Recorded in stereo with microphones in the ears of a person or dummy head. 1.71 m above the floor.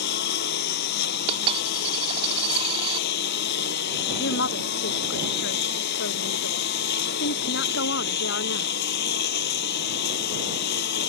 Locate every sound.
0.0 s a lawn mower: 60° left (ahead or behind)
1.3 s a dropped coin: 30° right (ahead or behind)
4.2 s a woman speaking: 65° left (ahead or behind)